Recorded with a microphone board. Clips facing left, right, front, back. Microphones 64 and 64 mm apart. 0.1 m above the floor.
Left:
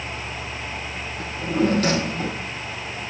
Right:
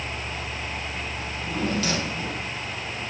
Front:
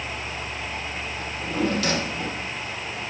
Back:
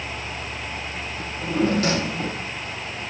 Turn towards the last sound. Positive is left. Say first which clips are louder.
# left 8 dB, back 3 dB
turn(degrees=130)